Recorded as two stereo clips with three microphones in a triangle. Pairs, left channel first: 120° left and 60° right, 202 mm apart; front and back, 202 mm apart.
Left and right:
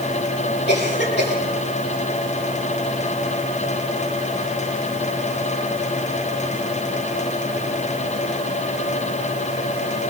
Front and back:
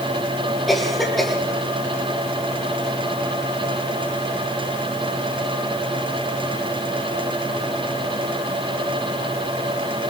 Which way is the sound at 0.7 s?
90° left.